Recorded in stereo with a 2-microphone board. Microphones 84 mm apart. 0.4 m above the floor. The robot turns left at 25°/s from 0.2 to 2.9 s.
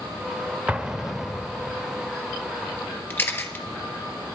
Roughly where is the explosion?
Centre.